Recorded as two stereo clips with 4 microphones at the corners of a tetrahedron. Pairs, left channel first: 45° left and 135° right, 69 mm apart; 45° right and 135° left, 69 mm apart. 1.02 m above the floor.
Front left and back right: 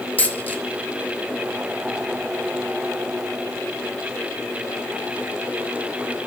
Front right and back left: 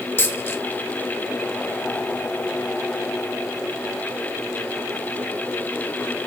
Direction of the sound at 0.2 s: 5° right.